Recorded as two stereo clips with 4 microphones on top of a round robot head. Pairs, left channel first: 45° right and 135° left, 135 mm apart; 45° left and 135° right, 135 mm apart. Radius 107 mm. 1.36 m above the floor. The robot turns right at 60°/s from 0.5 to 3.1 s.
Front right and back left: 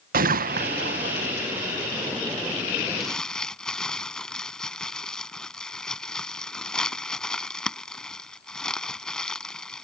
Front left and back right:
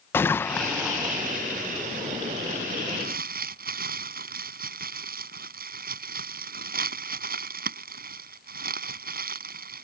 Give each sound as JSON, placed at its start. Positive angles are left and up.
{"t": 0.1, "sound": "a gunshot", "azimuth_deg": 120}
{"t": 3.0, "sound": "crumpling", "azimuth_deg": -135}